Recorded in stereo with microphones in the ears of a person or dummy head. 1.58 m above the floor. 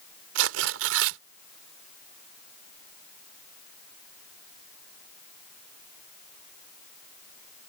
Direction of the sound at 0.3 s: 75° right (ahead or behind).